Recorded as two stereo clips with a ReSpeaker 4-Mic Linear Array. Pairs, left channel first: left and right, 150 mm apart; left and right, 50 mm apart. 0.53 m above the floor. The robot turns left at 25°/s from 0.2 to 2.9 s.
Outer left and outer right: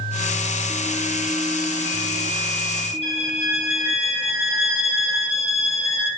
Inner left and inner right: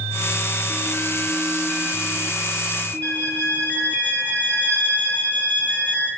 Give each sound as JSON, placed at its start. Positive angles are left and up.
{"t": 3.0, "sound": "a violin", "side_deg": 45, "distance_m": 6.0}